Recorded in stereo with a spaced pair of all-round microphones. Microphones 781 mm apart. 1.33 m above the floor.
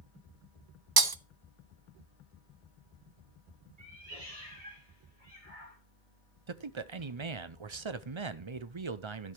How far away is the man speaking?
About 0.7 m.